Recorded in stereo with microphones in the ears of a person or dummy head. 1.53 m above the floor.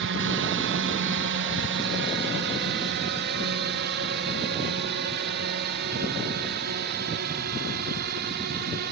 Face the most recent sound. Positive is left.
turn(degrees=-55)  # may be behind; listen again after turning